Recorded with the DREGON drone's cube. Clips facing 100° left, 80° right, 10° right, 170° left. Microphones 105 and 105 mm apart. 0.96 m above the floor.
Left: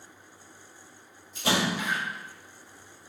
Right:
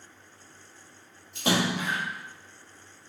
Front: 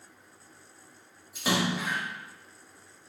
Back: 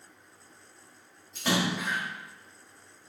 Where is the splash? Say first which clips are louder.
Right 1 dB, even; 95° right, 1.7 m.